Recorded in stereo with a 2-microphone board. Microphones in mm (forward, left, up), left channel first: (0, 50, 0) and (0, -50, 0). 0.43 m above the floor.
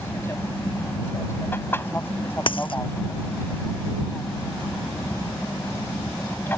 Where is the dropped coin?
55° left (ahead or behind).